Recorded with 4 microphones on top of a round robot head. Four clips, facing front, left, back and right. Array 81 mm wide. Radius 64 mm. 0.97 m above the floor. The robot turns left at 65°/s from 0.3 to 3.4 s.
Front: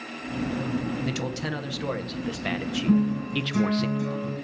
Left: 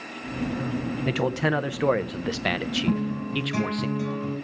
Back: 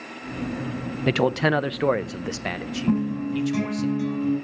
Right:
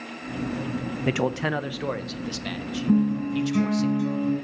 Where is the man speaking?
160° right, 0.6 m; by 3.9 s 45° left, 0.6 m.